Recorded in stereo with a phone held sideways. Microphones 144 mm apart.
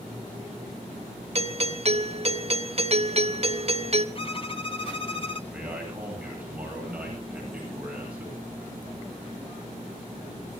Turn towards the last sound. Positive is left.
turn(degrees=-10)  # may be behind; listen again after turning